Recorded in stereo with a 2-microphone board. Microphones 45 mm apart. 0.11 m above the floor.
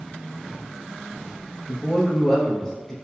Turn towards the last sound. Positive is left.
turn(degrees=10)  # may be behind; listen again after turning